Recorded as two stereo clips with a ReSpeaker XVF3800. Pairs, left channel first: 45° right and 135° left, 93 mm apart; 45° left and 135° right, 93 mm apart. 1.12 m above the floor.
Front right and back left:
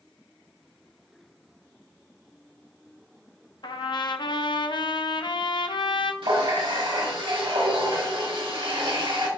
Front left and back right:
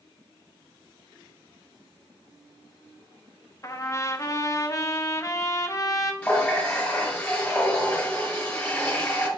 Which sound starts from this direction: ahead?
A trumpet, at 3.6 s.